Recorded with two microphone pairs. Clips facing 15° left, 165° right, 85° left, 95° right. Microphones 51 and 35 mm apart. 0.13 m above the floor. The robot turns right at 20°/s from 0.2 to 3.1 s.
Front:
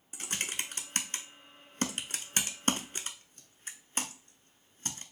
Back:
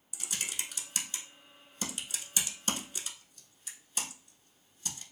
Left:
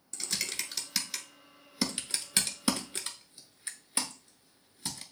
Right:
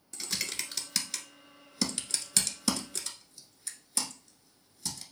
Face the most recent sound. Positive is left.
turn(degrees=45)